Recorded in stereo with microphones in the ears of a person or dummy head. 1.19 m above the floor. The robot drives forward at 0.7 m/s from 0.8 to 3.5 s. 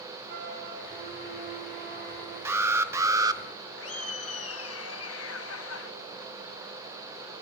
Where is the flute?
50° right (ahead or behind), 6.5 m; by 2.4 s 40° right (ahead or behind), 7 m.